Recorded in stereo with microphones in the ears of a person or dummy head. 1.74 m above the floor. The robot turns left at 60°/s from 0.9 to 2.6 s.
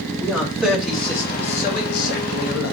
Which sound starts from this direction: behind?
A man speaking, at 0.2 s.